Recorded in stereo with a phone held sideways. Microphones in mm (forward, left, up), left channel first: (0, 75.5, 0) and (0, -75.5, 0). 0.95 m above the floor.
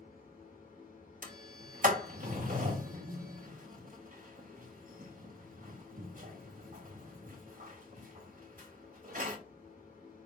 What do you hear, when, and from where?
0.0 s a machine running: 70° left (ahead or behind), 2.0 m
1.2 s a sliding door: 65° right (ahead or behind), 1.0 m